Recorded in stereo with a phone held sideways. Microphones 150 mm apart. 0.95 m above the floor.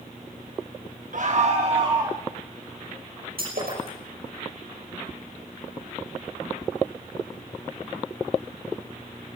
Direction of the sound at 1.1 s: 60° right (ahead or behind).